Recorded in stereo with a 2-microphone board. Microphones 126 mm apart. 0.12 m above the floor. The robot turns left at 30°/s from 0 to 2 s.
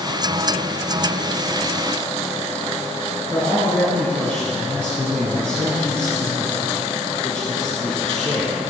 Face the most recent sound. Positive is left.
turn(degrees=10)  # may be behind; listen again after turning